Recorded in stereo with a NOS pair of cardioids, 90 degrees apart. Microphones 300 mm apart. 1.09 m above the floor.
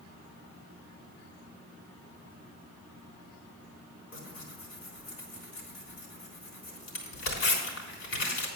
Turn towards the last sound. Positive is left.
turn(degrees=60)